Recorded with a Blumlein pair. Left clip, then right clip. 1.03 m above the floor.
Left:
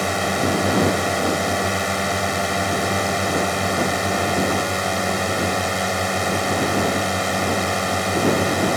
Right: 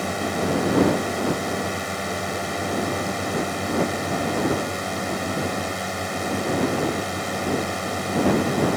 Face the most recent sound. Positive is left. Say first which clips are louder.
# left 4 dB
turn(degrees=70)